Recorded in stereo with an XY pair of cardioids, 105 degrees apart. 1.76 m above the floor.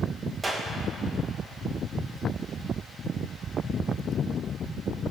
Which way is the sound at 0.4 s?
25° right.